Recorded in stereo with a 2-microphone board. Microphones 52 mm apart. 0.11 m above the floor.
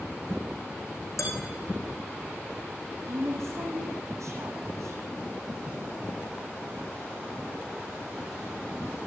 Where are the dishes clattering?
80° left, 4.5 m.